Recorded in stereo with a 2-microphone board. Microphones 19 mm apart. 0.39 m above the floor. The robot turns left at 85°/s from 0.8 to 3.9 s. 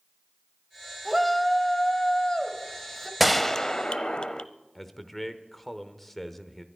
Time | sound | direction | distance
1.1 | a shout | 170° right | 1.6 m
3.2 | a gunshot | 175° right | 0.6 m
4.8 | a man speaking | 10° left (ahead or behind) | 0.9 m